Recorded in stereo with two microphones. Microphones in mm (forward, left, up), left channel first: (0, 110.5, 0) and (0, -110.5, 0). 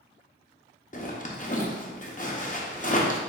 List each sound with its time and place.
0.9 s a zipper: 35° left (ahead or behind), 0.7 m